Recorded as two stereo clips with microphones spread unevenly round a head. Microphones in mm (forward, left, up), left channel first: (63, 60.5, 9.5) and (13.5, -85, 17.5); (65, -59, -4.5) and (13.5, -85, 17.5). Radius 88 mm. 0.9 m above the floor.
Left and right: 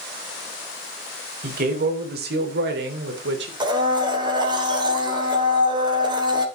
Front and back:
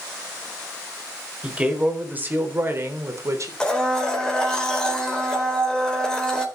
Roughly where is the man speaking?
Right.